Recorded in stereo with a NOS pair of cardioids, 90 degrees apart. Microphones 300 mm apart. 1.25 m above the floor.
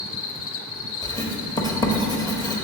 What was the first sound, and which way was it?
An insect, 50° left.